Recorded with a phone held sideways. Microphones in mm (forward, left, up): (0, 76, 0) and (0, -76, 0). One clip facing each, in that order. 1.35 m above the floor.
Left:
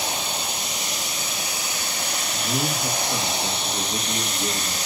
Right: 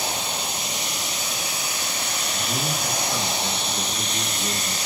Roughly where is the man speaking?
Left.